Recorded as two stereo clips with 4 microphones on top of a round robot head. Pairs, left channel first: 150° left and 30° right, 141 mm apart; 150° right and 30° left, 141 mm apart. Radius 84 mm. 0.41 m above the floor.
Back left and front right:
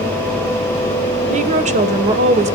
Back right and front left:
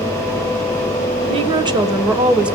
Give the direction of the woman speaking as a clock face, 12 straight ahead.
12 o'clock.